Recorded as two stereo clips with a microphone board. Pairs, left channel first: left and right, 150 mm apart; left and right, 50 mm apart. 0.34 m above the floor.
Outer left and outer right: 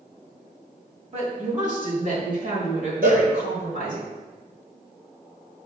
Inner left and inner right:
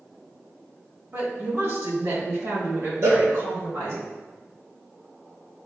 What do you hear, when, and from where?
1.1 s a woman speaking: 50° right (ahead or behind), 2.5 m; by 4.0 s 60° right (ahead or behind), 4 m
3.0 s a cowbell: 65° right (ahead or behind), 1.8 m